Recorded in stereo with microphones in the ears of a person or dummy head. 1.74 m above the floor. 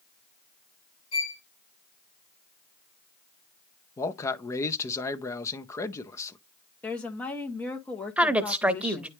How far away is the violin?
About 1.3 m.